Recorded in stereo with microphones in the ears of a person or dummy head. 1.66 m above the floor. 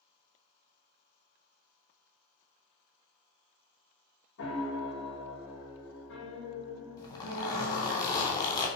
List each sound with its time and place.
4.4 s a piano: 75° left (ahead or behind), 2.5 m
7.0 s a zipper: 20° left (ahead or behind), 2.5 m